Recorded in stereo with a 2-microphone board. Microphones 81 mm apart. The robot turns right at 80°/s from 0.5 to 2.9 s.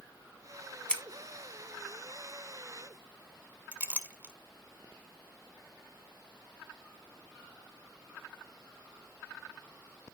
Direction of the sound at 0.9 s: 10° left (ahead or behind).